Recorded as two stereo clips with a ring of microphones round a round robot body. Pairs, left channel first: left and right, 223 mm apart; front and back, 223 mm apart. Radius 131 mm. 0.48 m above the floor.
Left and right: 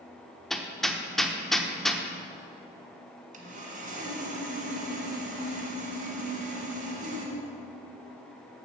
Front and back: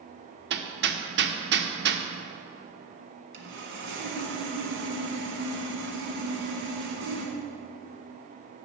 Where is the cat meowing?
I don't hear a cat meowing.